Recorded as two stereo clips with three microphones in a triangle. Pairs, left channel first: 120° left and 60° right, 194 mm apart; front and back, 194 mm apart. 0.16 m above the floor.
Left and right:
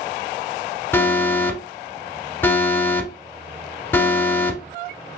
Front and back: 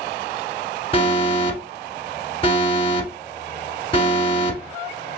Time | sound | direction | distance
0.9 | an alarm | 45° left | 1.0 m